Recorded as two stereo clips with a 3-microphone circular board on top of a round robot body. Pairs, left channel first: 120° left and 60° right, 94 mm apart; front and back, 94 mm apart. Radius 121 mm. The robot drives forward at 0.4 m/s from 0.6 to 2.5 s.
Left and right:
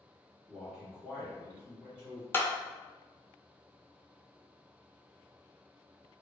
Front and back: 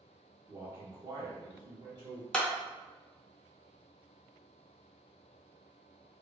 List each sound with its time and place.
0.5 s a man speaking: 140° right, 0.9 m; by 2.2 s 165° right, 1.3 m
2.3 s a clap: 75° left, 0.7 m; by 2.5 s 85° left, 0.7 m